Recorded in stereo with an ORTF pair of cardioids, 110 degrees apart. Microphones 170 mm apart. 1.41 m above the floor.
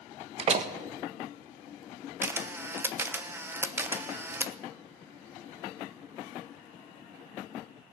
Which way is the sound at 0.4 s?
35° right.